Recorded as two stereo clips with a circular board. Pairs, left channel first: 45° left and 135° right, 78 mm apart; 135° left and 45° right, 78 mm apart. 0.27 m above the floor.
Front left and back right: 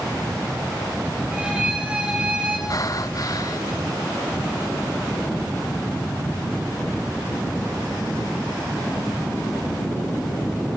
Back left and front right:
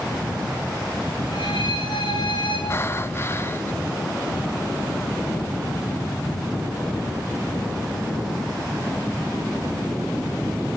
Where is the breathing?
80° left, 0.9 m.